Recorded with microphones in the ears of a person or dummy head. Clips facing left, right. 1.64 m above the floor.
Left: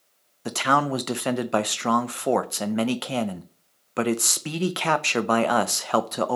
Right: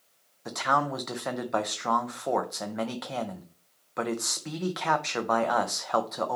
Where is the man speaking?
45° left (ahead or behind), 0.5 m.